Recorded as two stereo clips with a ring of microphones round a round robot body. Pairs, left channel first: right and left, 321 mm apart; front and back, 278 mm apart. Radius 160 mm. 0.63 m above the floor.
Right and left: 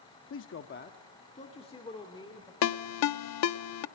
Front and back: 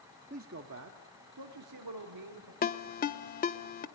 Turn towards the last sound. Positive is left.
turn(degrees=-60)